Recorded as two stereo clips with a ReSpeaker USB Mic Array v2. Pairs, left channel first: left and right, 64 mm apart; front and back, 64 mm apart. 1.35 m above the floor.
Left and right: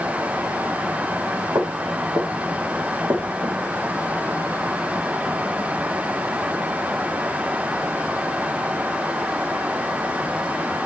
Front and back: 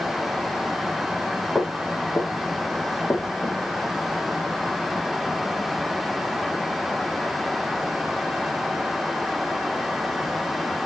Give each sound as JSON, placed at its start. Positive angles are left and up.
{"t": 1.6, "sound": "footsteps", "azimuth_deg": -80, "distance_m": 5.5}